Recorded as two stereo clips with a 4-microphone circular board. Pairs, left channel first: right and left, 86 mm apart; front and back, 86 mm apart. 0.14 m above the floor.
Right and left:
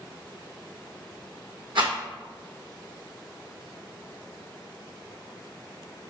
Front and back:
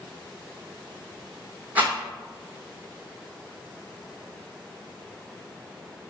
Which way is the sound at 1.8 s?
105° left.